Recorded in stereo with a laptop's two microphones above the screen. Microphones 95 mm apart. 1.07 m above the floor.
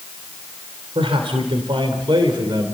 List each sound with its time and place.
0.9 s a man speaking: 80° right, 3 m; by 2.7 s 50° right (ahead or behind), 3 m